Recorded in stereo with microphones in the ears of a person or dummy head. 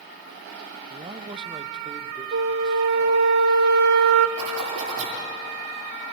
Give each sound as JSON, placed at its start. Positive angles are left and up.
{"t": 0.9, "sound": "a man speaking", "side_deg": -30, "distance_m": 0.7}
{"t": 2.3, "sound": "a flute", "side_deg": -60, "distance_m": 1.2}
{"t": 4.4, "sound": "a zipper", "side_deg": -75, "distance_m": 8.0}